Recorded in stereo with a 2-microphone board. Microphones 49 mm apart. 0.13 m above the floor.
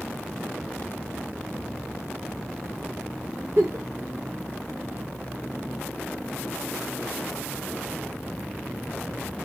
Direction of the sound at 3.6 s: 60° right (ahead or behind).